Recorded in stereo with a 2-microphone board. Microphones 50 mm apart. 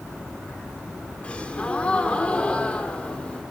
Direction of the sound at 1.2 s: 25° left (ahead or behind).